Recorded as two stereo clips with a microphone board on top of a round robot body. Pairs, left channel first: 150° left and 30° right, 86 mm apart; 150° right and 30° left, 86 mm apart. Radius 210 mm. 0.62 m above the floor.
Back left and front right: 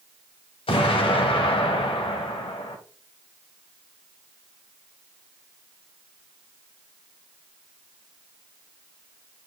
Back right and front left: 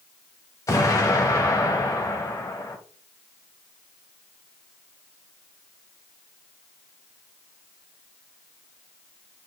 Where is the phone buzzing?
I don't hear a phone buzzing.